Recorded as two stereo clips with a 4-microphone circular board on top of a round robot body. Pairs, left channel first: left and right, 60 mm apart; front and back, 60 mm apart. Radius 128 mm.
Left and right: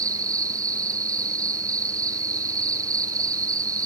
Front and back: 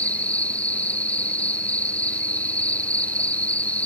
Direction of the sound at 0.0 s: 70° right.